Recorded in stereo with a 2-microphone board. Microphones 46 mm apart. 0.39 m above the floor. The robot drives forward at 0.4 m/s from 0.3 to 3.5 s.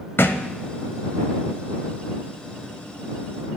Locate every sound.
0.2 s a thud: 55° left (ahead or behind), 0.8 m; by 0.5 s 50° left (ahead or behind), 0.8 m